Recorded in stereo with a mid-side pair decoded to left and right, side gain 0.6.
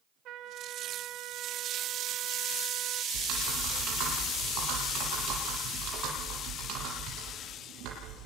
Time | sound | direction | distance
0.2 | a trumpet | 60° right | 2.5 m
3.1 | typing on a keyboard | 65° right | 9.5 m